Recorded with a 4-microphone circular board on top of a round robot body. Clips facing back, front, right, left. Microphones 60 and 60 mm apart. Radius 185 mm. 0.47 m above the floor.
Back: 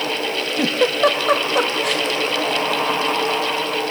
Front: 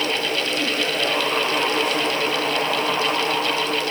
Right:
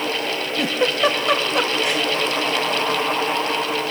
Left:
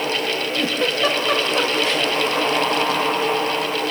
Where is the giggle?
165° right, 1.1 m.